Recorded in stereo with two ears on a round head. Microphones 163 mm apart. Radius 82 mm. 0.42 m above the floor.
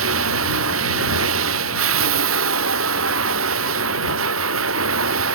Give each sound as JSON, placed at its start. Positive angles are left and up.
{"t": 0.0, "sound": "running water", "side_deg": -85}